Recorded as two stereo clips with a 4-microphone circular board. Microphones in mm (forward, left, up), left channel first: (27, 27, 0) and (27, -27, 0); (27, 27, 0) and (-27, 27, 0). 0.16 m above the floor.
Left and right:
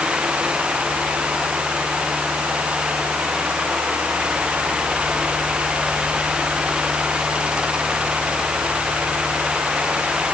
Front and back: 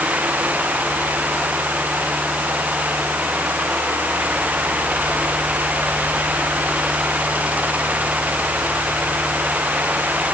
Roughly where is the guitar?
No guitar in this recording.